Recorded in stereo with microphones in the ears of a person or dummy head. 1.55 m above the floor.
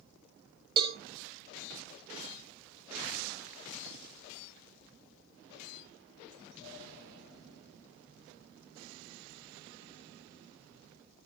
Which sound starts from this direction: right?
A cowbell, at 0.8 s.